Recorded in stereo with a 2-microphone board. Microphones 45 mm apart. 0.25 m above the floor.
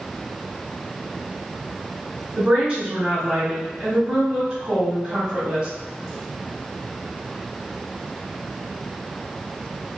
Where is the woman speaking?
25° right (ahead or behind), 1.5 m.